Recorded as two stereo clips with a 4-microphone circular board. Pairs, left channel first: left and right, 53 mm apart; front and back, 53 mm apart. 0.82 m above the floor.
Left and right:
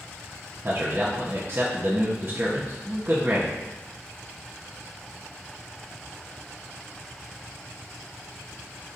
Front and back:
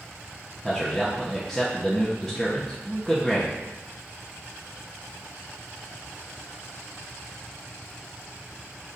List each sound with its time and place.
0.6 s a man speaking: 80° right, 0.7 m